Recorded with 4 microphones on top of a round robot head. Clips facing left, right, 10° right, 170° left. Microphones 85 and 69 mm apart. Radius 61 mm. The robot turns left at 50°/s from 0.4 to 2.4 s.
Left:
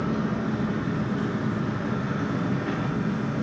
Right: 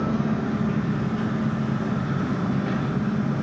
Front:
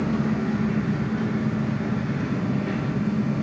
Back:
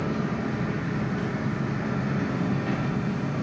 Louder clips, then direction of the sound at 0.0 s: Right 2 dB, front 4 dB; 75° right.